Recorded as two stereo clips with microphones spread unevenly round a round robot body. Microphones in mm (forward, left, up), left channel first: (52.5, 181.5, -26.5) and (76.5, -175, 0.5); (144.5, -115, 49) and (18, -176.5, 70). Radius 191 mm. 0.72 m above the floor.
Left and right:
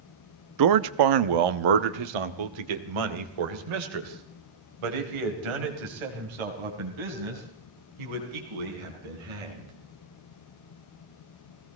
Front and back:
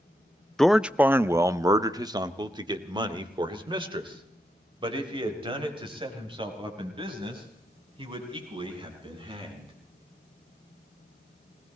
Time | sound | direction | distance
0.6 | a man speaking | 55° right | 0.7 m